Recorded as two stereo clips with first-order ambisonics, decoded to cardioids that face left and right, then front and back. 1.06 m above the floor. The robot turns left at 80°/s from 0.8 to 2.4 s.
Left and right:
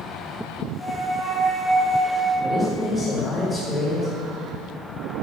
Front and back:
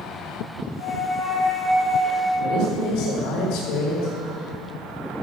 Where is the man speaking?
20° left, 3.5 m.